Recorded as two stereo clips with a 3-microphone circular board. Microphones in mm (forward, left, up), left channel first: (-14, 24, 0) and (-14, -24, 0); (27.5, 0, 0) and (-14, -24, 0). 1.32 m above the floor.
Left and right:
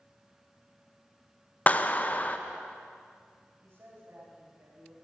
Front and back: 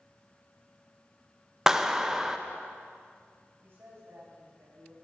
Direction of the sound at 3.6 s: 120° right.